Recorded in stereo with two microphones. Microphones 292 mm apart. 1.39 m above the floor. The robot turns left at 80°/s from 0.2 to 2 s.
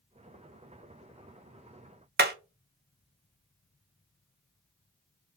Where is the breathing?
No breathing in this recording.